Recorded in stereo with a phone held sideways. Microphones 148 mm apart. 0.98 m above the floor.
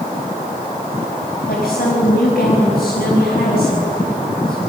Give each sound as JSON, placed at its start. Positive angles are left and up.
{"t": 1.5, "sound": "a woman speaking", "side_deg": 85, "distance_m": 5.0}